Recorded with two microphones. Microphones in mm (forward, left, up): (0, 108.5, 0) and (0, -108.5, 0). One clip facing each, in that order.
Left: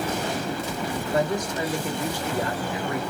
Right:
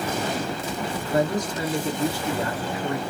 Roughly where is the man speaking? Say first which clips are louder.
Right 2 dB; right.